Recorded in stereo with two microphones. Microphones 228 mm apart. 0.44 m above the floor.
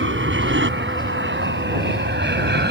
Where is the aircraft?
60° right (ahead or behind); by 2.7 s 50° right (ahead or behind).